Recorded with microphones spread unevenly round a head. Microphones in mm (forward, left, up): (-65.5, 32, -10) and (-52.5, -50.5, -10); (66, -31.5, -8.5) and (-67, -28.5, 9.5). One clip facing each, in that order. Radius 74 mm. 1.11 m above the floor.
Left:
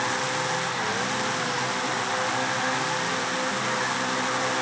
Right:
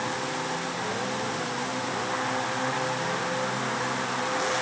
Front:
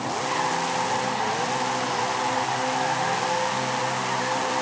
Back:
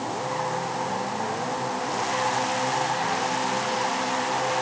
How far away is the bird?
I don't hear a bird.